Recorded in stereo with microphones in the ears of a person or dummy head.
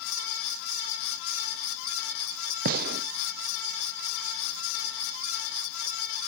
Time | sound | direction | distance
2.6 | a gunshot | 50° right (ahead or behind) | 0.5 m